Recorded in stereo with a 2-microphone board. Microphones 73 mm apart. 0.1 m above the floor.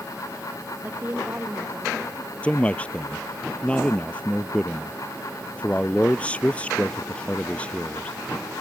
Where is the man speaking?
15° left (ahead or behind).